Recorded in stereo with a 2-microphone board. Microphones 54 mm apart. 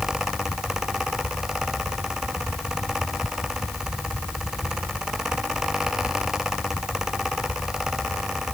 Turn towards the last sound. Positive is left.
No sound to turn to.